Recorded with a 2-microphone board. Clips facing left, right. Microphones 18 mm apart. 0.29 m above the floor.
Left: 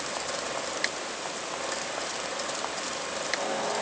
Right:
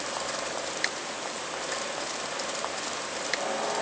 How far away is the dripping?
I don't hear dripping.